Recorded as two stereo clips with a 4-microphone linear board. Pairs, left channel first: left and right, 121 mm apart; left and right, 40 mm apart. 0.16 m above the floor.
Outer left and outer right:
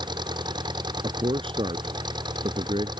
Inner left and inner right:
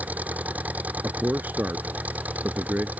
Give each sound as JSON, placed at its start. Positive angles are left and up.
{"t": 0.0, "sound": "an engine running", "side_deg": -35}
{"t": 1.0, "sound": "a man speaking", "side_deg": -50}